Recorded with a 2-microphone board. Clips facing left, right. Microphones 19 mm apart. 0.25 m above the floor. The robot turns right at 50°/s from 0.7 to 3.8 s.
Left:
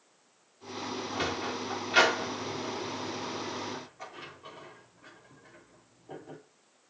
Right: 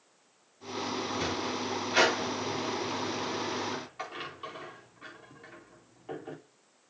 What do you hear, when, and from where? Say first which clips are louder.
1.1 s a sliding door: even; 60° left (ahead or behind), 5 m; by 6.4 s 75° right (ahead or behind), 5 m